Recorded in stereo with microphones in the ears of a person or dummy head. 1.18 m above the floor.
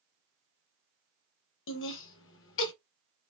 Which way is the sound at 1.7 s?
65° left (ahead or behind).